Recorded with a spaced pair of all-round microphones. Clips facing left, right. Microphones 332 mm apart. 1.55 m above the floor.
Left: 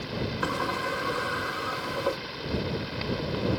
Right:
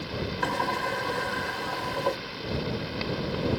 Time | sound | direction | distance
0.4 | a sliding door | 10° left (ahead or behind) | ?